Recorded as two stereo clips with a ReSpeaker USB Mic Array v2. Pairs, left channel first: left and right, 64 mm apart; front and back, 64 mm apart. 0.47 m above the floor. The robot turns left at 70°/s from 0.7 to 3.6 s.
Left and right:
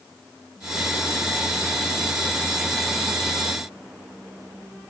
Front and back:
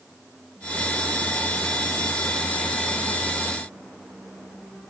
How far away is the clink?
No clink in this recording.